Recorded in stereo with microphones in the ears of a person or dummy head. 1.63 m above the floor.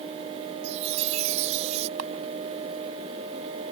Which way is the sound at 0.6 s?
40° right (ahead or behind).